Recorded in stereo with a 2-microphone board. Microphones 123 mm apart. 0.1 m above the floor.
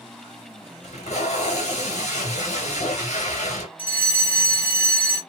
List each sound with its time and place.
0.8 s tape being pulled: 65° left (ahead or behind), 1.3 m
3.8 s a fire alarm: 15° left (ahead or behind), 2 m